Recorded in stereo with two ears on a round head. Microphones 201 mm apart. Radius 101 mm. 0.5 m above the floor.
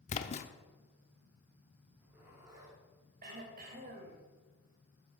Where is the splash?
30° left (ahead or behind), 0.8 m.